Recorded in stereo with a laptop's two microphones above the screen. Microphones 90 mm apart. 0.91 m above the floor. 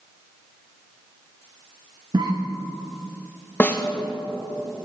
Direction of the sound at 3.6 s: 20° left (ahead or behind).